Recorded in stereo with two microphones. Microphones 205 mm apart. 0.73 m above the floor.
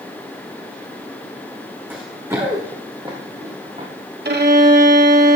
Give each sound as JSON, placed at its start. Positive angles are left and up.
{"t": 1.9, "sound": "running footsteps", "side_deg": -10, "distance_m": 3.0}
{"t": 4.2, "sound": "a violin", "side_deg": -55, "distance_m": 1.2}